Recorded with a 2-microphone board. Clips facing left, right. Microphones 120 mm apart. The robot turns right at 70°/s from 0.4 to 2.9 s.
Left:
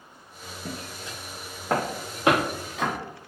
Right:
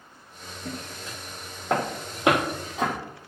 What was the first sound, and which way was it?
Footsteps, 40° left (ahead or behind).